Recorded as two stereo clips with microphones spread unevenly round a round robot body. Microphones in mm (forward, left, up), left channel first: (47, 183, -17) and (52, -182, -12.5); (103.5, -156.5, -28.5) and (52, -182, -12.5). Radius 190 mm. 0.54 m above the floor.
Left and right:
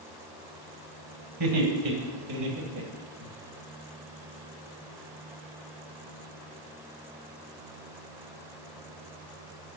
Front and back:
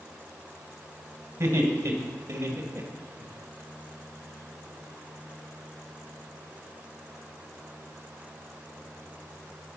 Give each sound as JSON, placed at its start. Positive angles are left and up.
{"t": 1.4, "sound": "laughter", "azimuth_deg": -120, "distance_m": 3.0}